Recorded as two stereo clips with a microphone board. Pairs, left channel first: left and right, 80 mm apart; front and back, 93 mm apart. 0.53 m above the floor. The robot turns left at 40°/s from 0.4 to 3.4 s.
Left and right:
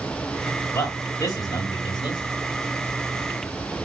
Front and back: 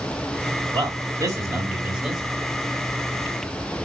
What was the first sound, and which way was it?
A man speaking, 150° left.